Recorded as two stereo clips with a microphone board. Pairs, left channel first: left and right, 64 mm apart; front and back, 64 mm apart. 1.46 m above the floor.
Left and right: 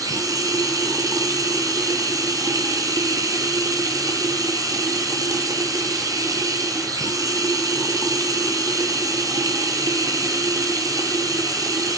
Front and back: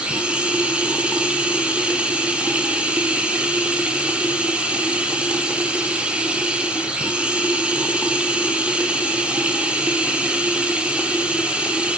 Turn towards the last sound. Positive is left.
turn(degrees=-105)